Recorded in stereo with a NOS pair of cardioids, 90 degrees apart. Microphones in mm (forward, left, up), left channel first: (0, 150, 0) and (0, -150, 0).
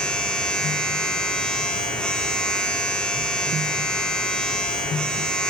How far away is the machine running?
About 2.5 m.